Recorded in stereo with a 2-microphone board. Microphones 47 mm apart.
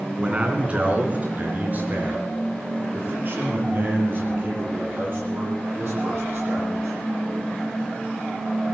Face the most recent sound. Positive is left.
turn(degrees=-50)  # may be behind; listen again after turning